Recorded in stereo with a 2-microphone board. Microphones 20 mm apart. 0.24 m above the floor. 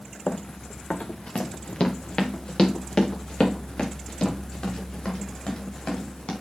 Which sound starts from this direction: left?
Running footsteps, at 0.3 s.